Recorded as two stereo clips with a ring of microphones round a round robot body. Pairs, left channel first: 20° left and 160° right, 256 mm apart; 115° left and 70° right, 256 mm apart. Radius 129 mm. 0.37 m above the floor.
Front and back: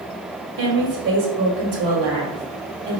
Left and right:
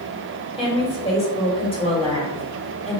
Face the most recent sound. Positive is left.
turn(degrees=175)